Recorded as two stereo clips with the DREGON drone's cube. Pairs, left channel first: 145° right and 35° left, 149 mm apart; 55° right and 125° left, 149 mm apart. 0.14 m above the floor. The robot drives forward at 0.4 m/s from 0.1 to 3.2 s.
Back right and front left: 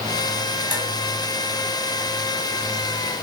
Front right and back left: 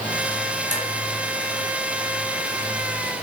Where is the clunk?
No clunk in this recording.